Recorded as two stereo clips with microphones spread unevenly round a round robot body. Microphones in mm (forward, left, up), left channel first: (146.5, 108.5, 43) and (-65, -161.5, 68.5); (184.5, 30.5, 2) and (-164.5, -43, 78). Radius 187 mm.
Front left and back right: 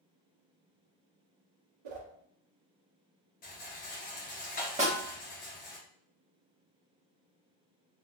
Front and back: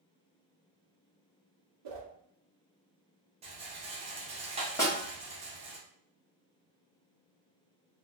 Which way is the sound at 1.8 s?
135° right.